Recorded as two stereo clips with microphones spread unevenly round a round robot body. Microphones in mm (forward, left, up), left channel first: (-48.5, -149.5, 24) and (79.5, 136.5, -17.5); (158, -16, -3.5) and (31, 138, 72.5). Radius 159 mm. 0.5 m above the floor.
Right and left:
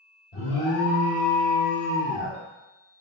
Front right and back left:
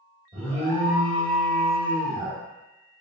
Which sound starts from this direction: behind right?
An alarm, at 0.3 s.